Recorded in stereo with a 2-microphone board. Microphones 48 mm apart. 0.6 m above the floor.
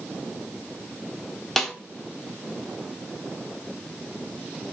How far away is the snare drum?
About 0.7 m.